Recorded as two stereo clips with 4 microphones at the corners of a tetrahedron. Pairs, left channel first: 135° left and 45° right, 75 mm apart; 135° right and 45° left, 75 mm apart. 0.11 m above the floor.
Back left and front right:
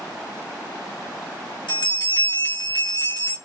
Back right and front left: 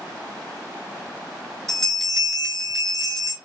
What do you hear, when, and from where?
1.7 s a bell: 135° left, 2 m